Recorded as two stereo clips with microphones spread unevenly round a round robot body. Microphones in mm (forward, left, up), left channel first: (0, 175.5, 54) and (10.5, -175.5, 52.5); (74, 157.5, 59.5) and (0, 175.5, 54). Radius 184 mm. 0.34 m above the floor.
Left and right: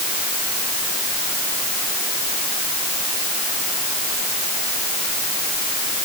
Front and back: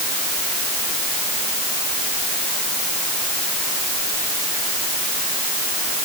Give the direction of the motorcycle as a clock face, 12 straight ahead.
No motorcycle in this recording.